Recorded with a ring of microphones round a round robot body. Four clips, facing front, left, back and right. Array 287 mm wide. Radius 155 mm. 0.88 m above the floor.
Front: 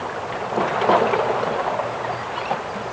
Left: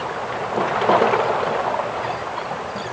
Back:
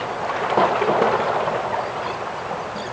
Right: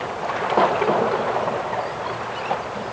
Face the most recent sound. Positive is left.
No sound to turn to.